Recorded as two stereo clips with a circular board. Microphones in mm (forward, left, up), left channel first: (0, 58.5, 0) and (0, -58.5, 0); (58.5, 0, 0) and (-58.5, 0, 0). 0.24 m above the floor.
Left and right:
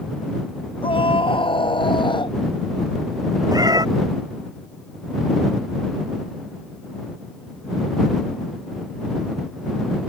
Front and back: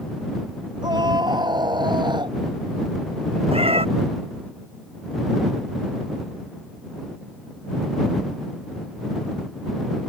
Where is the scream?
130° left; by 2.4 s 135° left.